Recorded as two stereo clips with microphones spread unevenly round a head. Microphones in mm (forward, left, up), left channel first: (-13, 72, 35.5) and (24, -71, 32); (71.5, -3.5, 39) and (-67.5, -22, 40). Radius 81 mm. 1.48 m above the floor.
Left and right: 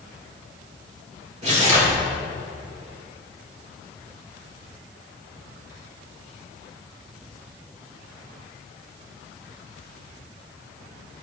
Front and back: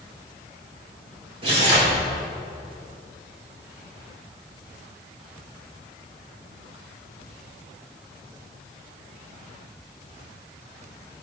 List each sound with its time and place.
1.4 s tearing paper: 125° right, 3.5 m